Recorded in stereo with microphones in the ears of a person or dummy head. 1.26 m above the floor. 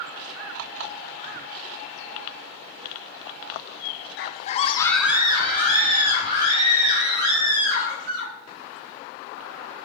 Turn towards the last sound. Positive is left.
turn(degrees=-60)  # may be behind; listen again after turning